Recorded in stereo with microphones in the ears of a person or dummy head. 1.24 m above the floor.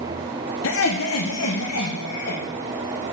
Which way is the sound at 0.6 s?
65° left (ahead or behind).